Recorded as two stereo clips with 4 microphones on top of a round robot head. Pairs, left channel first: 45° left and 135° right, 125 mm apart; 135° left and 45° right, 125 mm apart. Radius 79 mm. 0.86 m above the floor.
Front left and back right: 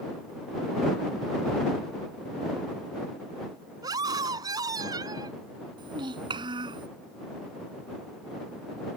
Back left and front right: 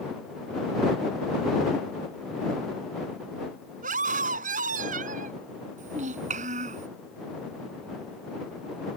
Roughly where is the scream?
Right.